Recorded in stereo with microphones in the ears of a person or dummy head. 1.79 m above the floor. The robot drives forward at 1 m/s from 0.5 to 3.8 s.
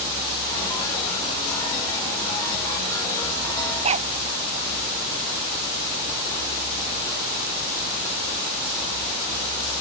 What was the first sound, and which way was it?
A dog barking, 40° right (ahead or behind).